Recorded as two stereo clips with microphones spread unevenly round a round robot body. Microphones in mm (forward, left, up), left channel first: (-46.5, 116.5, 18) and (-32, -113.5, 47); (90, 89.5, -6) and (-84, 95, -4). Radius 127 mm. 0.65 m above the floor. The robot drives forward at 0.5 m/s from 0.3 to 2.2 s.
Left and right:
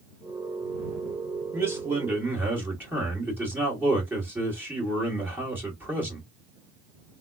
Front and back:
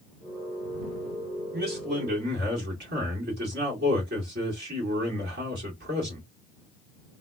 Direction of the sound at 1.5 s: 170° right.